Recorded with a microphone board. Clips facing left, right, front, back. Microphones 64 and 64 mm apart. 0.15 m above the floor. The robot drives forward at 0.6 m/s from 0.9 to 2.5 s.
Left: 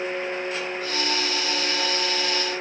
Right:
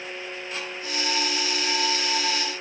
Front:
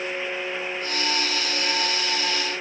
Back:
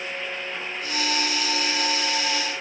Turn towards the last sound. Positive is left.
No sound to turn to.